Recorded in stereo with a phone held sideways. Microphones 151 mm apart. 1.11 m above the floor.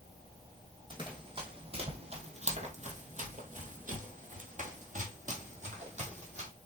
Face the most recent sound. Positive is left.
turn(degrees=-50)  # may be behind; listen again after turning